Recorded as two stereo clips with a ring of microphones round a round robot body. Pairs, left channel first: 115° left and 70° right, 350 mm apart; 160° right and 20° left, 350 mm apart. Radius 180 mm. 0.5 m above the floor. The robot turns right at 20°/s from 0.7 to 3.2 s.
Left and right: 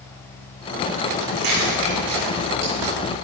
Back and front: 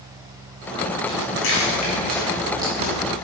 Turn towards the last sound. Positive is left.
turn(degrees=-40)